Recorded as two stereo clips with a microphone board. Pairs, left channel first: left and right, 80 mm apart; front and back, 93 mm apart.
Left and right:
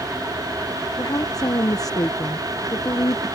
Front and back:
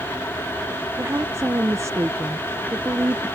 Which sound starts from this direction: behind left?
A woman speaking, at 1.0 s.